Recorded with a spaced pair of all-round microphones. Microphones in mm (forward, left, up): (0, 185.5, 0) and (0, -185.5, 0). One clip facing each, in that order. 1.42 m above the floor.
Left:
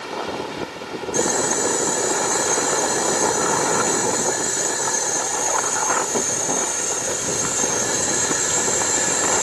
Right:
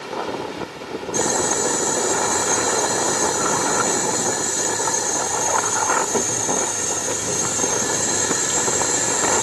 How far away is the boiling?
About 2.5 m.